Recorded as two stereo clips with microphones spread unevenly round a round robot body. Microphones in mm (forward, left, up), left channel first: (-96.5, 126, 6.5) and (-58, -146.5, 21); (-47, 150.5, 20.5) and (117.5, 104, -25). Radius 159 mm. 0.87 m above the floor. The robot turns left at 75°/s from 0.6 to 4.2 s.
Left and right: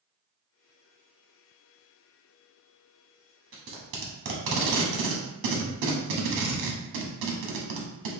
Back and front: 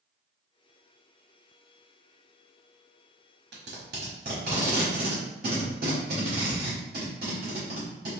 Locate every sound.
3.5 s tape being pulled: 15° right, 0.9 m; by 8.1 s 65° right, 0.9 m